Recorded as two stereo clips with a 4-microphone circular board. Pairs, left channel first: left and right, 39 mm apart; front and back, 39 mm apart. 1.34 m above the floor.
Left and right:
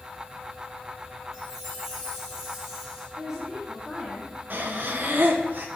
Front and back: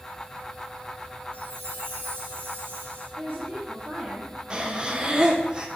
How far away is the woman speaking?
About 2.5 m.